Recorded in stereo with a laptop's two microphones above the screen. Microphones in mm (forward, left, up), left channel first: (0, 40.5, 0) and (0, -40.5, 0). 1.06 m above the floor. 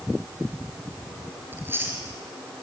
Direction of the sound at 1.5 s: 25° right (ahead or behind).